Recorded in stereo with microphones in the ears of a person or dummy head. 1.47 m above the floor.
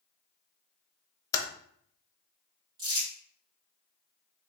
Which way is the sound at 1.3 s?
15° left (ahead or behind).